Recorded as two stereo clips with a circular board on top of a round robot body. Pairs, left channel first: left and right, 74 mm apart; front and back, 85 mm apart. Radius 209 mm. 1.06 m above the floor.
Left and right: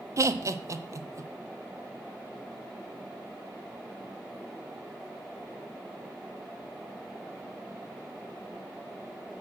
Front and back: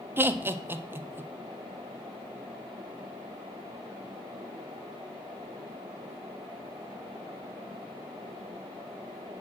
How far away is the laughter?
About 0.8 m.